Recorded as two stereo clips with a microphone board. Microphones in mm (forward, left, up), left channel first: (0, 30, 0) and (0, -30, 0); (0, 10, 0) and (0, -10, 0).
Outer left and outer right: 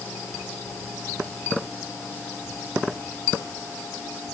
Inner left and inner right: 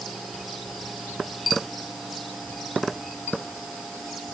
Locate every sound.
Only background noise.